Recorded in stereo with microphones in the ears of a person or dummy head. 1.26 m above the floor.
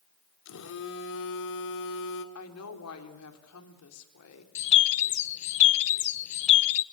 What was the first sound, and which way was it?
A phone buzzing, 70° left (ahead or behind).